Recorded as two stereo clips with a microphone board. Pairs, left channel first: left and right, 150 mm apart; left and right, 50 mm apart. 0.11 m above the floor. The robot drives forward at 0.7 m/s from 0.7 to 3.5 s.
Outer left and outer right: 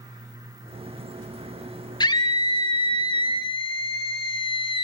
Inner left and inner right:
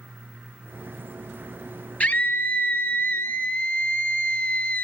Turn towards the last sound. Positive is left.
turn(degrees=35)  # may be behind; listen again after turning